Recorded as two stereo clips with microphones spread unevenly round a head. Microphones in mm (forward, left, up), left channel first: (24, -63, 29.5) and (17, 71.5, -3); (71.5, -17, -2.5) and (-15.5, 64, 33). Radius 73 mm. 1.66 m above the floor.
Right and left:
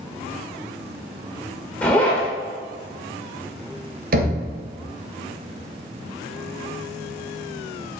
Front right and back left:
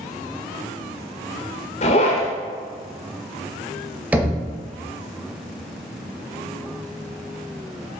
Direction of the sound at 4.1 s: 70° left.